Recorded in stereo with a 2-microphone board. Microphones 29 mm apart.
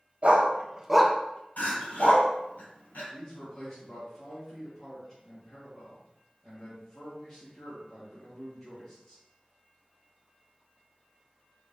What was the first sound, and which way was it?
A dog barking, 55° right (ahead or behind).